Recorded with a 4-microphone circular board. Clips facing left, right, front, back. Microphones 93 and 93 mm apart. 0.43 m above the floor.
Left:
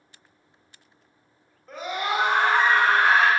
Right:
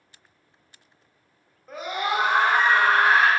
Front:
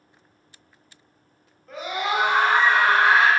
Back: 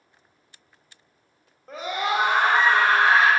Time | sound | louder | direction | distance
1.7 | a scream | right 1 dB, even | 170° right | 0.8 m